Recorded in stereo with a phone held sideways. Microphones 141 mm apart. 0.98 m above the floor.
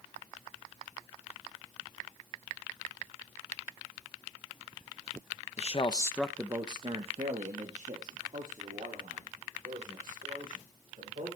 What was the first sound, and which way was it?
A man speaking, 50° left (ahead or behind).